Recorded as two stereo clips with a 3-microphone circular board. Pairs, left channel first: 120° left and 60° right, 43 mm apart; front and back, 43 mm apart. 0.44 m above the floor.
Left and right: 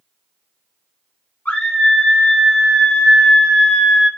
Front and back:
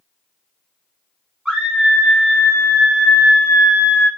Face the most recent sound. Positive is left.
turn(degrees=30)